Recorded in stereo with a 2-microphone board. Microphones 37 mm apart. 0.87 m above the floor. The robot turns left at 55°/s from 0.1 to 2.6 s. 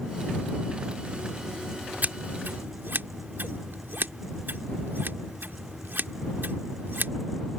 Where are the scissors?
55° right (ahead or behind); by 7.1 s 80° right.